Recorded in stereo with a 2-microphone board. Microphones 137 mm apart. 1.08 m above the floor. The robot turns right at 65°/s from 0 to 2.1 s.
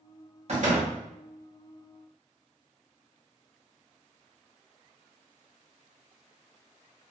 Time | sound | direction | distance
0.5 | a door slam | 50° right (ahead or behind) | 1.1 m